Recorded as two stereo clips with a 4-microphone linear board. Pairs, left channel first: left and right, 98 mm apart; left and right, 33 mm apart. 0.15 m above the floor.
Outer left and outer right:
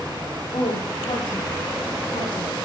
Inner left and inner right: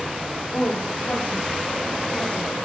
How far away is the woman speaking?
About 8 m.